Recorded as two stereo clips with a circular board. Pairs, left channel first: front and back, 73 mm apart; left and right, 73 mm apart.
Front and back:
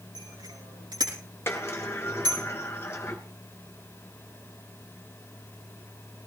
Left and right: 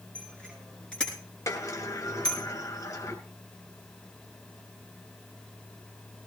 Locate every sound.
0.1 s a bicycle bell: 165° left, 5.5 m; by 2.4 s 170° left, 7 m
1.5 s a sliding door: 55° left, 2.5 m